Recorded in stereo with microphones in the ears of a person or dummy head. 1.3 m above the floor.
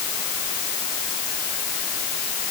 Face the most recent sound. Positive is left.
No sound to turn to.